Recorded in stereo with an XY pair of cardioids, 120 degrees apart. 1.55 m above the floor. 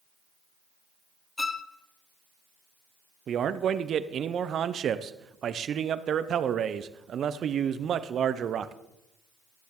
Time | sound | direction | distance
1.4 | a violin | 15° left | 0.6 m
3.3 | a man speaking | 50° right | 0.6 m